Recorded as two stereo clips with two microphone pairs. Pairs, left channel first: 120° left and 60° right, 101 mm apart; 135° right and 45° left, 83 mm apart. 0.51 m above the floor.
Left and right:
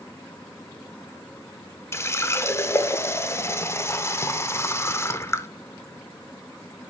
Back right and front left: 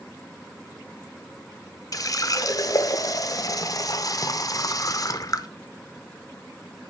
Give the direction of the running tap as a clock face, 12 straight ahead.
6 o'clock.